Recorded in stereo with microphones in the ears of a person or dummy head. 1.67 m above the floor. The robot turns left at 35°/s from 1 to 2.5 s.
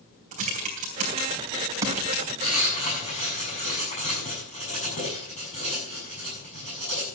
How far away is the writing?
About 7 m.